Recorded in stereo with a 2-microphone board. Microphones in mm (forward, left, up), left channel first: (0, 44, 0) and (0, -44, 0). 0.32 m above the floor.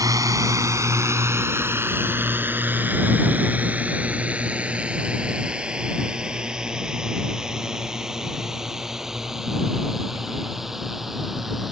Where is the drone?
45° right (ahead or behind); by 11.7 s centre (ahead or behind).